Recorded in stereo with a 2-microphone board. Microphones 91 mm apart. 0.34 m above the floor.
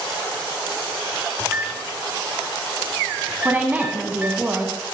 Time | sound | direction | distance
1.4 | a microwave | 15° right (ahead or behind) | 1.0 m
3.5 | a woman speaking | 20° right (ahead or behind) | 2.5 m